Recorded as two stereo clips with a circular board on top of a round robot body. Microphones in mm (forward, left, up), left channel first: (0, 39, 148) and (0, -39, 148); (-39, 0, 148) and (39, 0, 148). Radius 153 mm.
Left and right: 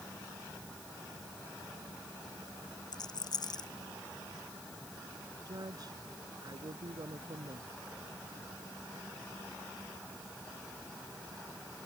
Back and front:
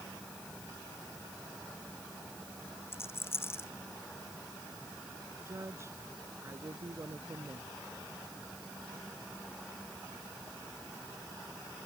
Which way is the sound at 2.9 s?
120° left.